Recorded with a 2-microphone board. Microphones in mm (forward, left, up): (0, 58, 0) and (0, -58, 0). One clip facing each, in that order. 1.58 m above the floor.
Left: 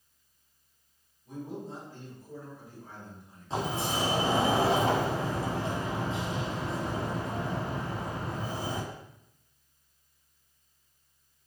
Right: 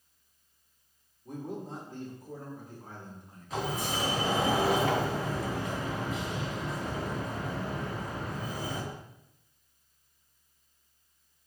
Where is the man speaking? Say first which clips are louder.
Right 1 dB; 55° right (ahead or behind), 5 m.